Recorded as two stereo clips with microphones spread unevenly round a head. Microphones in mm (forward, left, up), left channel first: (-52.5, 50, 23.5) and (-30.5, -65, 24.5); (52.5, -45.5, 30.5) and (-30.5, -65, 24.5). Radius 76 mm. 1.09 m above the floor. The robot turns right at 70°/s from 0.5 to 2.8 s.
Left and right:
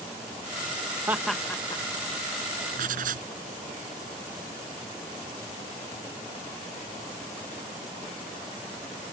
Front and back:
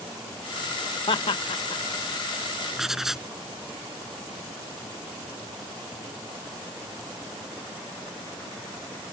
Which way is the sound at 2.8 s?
85° right.